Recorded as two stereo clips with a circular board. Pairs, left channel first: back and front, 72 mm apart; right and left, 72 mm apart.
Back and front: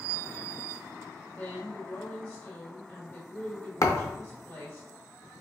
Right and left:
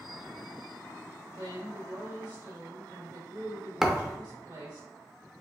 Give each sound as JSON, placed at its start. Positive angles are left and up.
{"t": 1.3, "sound": "a woman speaking", "azimuth_deg": 110, "distance_m": 2.0}
{"t": 3.8, "sound": "a thud", "azimuth_deg": 170, "distance_m": 0.6}